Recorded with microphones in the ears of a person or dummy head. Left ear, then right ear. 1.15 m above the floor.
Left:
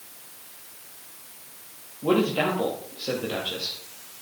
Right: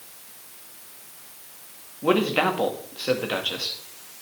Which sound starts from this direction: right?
A man speaking, at 2.0 s.